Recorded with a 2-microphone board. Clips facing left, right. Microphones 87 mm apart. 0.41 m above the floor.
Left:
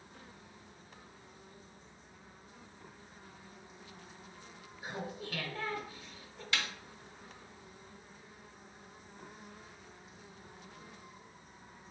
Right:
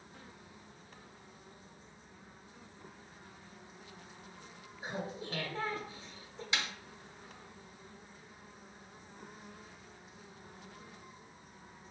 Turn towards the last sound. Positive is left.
turn(degrees=-20)  # may be behind; listen again after turning